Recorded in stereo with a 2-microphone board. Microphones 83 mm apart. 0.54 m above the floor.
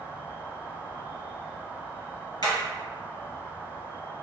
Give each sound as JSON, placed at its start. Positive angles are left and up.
{"t": 0.0, "sound": "an insect", "side_deg": 70, "distance_m": 1.5}
{"t": 2.4, "sound": "hammering", "side_deg": 60, "distance_m": 1.8}